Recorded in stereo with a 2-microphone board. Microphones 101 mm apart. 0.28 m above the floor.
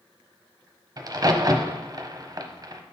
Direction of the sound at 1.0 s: 40° right (ahead or behind).